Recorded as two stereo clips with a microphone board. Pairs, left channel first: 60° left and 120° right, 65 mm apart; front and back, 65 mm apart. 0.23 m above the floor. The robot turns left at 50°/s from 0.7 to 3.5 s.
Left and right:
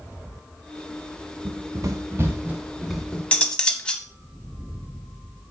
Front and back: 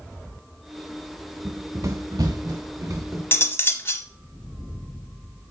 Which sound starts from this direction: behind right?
Running footsteps, at 1.4 s.